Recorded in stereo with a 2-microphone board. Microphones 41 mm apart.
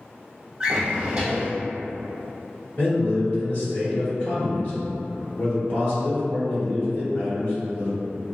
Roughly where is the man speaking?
Left.